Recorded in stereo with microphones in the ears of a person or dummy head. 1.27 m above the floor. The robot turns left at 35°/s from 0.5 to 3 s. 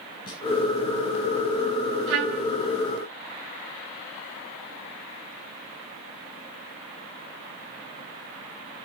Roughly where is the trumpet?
Right.